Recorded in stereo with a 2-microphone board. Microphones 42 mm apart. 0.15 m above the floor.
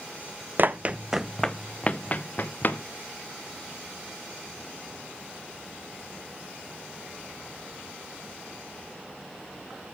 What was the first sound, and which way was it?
Running footsteps, 45° right (ahead or behind).